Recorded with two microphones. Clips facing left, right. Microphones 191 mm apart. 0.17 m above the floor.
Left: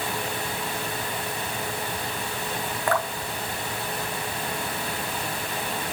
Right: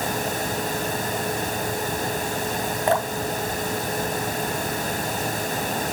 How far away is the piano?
I don't hear a piano.